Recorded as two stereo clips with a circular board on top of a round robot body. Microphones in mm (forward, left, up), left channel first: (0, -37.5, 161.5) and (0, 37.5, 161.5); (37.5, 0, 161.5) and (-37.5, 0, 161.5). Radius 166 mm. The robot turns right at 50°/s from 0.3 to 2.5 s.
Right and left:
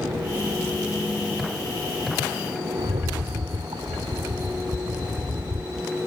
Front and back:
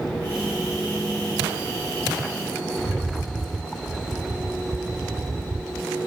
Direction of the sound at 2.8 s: 85° left.